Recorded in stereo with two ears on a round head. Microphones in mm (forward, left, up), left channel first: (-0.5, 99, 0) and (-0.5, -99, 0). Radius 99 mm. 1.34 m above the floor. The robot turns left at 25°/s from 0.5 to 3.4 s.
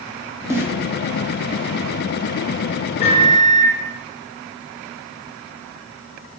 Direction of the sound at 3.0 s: 30° left (ahead or behind).